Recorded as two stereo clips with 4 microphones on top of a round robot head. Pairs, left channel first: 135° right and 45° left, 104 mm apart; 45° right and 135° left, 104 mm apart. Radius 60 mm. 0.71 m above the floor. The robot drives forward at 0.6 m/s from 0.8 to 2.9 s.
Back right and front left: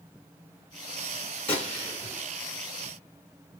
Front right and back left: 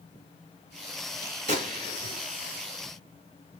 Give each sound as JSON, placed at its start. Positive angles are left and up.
{"t": 1.5, "sound": "a gunshot", "azimuth_deg": 145, "distance_m": 3.5}